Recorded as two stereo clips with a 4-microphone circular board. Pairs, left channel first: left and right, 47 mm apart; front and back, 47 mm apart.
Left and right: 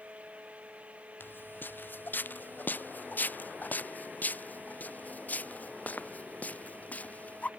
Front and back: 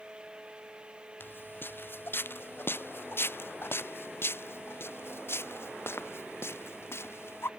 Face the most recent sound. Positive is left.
turn(degrees=30)